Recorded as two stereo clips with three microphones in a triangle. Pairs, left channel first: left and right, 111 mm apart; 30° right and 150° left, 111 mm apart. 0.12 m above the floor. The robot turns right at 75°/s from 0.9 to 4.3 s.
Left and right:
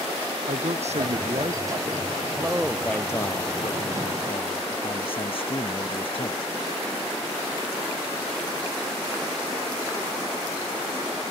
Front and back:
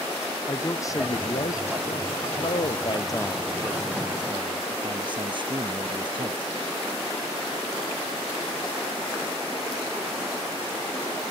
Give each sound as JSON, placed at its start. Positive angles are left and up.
{"t": 0.5, "sound": "a man speaking", "azimuth_deg": -90}
{"t": 2.4, "sound": "a man speaking", "azimuth_deg": -30}